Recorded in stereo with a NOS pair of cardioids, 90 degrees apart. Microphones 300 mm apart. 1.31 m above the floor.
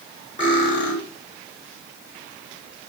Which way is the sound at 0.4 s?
15° right.